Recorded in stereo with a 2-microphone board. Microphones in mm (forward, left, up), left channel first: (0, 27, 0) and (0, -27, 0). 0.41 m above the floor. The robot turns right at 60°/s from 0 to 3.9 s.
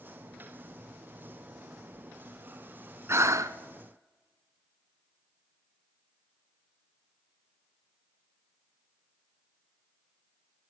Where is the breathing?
50° right (ahead or behind), 0.7 m; by 3.6 s 75° right (ahead or behind), 0.7 m.